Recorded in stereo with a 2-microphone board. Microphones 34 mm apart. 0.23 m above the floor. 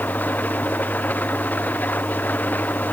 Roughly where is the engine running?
Left.